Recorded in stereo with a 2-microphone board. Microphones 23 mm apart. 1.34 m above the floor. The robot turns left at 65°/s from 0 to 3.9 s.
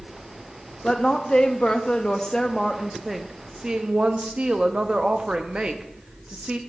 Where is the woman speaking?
135° left, 0.6 m; by 6.6 s 65° right, 0.6 m.